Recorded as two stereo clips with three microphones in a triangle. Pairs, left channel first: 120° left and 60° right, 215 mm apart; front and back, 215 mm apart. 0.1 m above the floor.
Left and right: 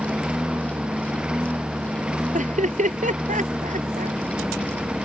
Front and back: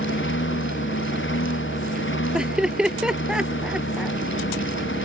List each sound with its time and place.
0.0 s a lawn mower: 25° left
2.3 s laughter: 95° right